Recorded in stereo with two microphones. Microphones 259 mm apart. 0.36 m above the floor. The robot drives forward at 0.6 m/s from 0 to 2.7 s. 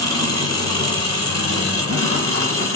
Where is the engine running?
75° right (ahead or behind), 2.0 m; by 2.8 s 55° right (ahead or behind), 2.5 m.